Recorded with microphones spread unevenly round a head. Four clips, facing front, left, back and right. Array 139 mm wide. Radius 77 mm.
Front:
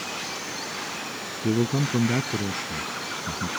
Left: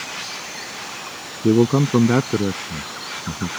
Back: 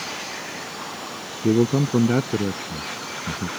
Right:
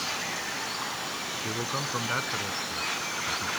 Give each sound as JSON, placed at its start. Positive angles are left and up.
{"t": 1.4, "sound": "a man speaking", "azimuth_deg": 110}